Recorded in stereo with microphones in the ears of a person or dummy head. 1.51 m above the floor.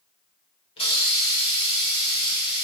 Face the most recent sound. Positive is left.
turn(degrees=30)  # may be behind; listen again after turning